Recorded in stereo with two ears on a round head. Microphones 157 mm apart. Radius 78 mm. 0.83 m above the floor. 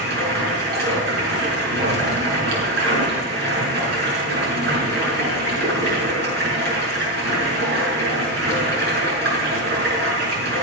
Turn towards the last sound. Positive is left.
turn(degrees=-60)  # may be behind; listen again after turning